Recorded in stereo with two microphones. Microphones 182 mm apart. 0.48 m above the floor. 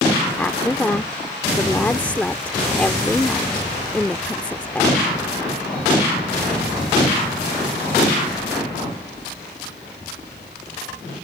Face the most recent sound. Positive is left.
turn(degrees=10)  # may be behind; listen again after turning